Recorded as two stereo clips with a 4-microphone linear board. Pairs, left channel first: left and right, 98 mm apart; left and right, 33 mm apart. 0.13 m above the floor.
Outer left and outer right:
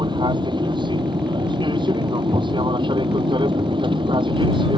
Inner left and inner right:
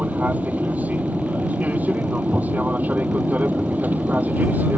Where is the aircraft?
50° right (ahead or behind); by 4.8 s 55° right (ahead or behind).